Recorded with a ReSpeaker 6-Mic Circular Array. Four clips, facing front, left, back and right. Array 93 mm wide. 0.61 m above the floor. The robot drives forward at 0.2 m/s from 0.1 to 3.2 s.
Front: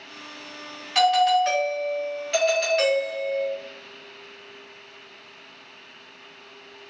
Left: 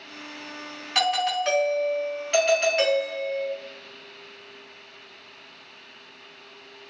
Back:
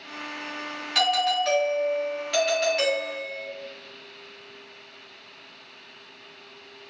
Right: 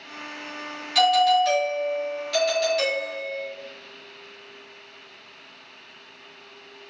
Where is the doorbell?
65° left, 1.7 m; by 3.5 s 90° left, 1.7 m.